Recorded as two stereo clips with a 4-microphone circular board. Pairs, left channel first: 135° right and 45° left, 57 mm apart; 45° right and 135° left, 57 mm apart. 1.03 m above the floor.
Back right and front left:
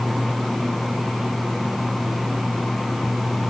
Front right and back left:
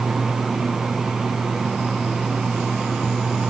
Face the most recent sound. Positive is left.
No sound to turn to.